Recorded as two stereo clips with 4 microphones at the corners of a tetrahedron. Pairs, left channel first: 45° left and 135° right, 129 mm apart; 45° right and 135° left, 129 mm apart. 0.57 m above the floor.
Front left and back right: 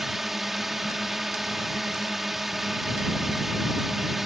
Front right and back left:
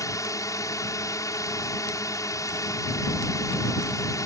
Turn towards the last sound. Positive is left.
turn(degrees=-50)